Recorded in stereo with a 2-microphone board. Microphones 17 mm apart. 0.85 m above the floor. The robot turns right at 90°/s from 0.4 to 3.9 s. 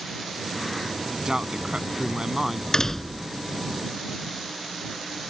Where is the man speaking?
140° right; by 2.6 s 10° right.